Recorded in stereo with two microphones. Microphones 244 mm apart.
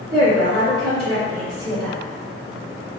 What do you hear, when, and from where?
0.1 s a woman speaking: 85° right, 1.8 m